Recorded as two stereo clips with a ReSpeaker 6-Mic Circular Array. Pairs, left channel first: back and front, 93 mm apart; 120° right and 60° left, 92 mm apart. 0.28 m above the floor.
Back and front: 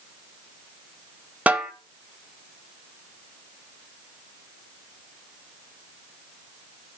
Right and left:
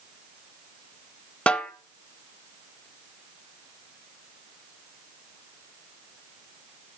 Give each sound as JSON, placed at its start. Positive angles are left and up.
{"t": 1.5, "sound": "a snare drum", "azimuth_deg": -55, "distance_m": 0.8}